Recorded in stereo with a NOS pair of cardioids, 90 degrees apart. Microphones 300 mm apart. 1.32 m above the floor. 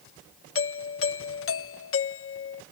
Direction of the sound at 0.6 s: 45° left.